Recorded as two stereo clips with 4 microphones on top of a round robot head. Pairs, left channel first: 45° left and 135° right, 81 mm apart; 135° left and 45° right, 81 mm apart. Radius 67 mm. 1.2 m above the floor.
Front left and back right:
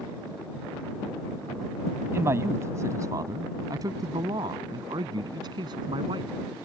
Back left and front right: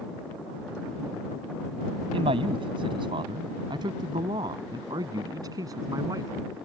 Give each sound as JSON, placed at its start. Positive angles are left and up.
{"t": 2.1, "sound": "a man speaking", "azimuth_deg": -70}